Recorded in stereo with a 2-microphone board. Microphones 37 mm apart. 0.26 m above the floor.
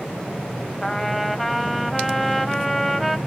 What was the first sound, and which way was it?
A trumpet, 5° left (ahead or behind).